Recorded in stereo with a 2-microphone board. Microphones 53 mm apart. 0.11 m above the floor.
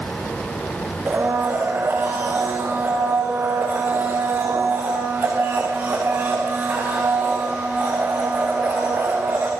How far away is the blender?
About 8 m.